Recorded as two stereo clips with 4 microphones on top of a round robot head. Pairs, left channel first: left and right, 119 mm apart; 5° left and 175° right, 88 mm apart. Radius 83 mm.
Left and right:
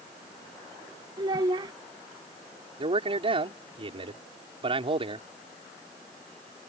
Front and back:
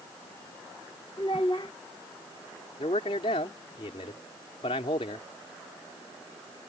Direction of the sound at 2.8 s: 45° right.